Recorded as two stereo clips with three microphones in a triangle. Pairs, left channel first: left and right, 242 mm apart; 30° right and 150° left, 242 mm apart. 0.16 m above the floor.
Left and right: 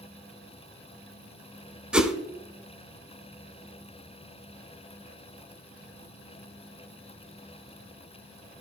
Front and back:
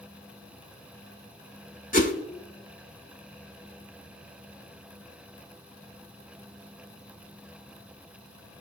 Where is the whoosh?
5° right, 0.8 m.